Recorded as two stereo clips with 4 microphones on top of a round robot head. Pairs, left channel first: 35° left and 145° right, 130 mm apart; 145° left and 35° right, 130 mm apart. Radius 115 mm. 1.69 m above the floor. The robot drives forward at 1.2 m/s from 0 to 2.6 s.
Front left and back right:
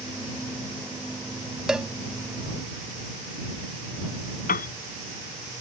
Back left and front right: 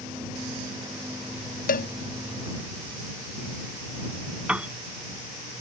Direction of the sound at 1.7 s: 130° left.